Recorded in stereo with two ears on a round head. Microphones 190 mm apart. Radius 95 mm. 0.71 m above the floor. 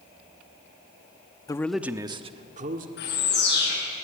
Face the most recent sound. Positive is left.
turn(degrees=55)  # may be behind; listen again after turning